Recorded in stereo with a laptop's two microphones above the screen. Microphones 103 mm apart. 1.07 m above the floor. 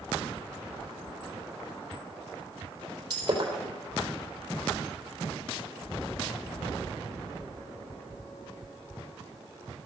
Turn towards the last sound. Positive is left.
turn(degrees=-40)  # may be behind; listen again after turning